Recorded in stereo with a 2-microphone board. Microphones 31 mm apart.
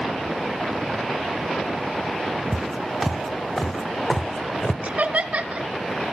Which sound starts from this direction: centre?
Footsteps, at 2.5 s.